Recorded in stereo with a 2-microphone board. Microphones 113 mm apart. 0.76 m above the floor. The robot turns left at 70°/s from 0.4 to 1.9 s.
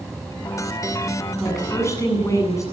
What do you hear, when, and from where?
0.0 s an insect: 175° left, 4 m; by 2.7 s 70° left, 4 m
1.4 s a woman speaking: 175° right, 8 m; by 2.6 s 150° left, 8 m